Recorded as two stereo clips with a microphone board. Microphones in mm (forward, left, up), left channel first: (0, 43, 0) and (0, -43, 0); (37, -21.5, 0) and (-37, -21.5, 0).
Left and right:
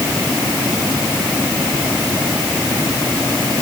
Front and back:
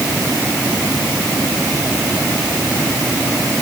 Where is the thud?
No thud in this recording.